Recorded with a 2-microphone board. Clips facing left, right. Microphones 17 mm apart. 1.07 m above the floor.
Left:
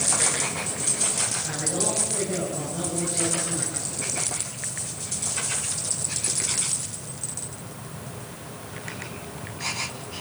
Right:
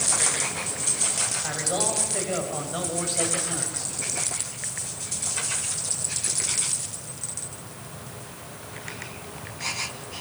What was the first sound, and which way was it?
A man speaking, 75° right (ahead or behind).